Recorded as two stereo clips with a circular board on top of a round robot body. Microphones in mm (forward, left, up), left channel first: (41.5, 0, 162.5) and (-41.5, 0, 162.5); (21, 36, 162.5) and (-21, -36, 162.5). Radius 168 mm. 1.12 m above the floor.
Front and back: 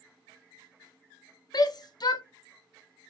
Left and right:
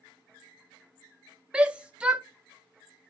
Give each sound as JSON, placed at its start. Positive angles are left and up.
{"t": 1.5, "sound": "a shout", "azimuth_deg": -40, "distance_m": 0.6}